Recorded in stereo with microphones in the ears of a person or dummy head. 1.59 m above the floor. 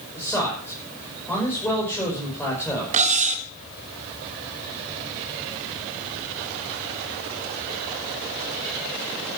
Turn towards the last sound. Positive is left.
turn(degrees=-40)  # may be behind; listen again after turning